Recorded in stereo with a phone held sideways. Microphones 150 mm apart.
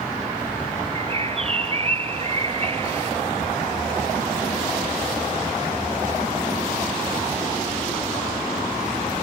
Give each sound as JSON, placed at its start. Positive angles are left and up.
{"t": 0.9, "sound": "a bird", "side_deg": -40, "distance_m": 0.7}